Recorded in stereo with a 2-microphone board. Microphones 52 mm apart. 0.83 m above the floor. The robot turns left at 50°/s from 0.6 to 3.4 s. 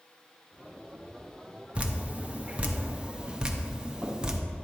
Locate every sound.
1.8 s dripping: 25° right (ahead or behind), 0.7 m; by 4.4 s 15° right (ahead or behind), 0.7 m